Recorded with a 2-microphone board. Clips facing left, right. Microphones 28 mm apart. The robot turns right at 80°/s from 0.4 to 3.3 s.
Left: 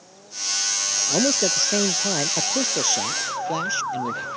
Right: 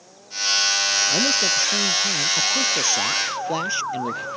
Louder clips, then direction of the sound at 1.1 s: Right 2 dB; 20° left.